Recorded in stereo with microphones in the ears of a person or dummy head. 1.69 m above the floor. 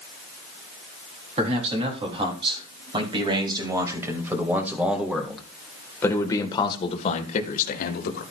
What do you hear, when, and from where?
1.4 s a man speaking: 35° right (ahead or behind), 4 m; by 8.2 s 60° left (ahead or behind), 1.9 m